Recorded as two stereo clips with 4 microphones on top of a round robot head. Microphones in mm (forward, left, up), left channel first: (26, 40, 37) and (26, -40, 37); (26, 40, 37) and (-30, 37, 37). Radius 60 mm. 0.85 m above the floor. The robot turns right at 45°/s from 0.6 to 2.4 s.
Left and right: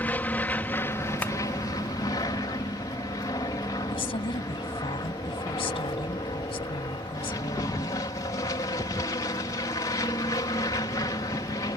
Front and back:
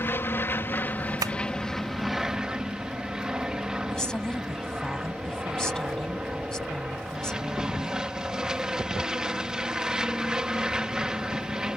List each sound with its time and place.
0.0 s an aircraft: 30° left; by 11.8 s 110° left
1.2 s tapping: 165° left; by 1.3 s 170° left
3.9 s a woman speaking: 80° left